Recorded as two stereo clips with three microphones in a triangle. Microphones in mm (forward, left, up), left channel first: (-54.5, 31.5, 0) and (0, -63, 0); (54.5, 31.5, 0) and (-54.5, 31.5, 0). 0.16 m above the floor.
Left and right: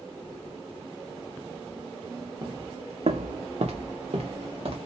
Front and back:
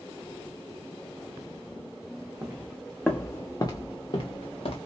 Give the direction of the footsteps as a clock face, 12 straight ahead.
4 o'clock.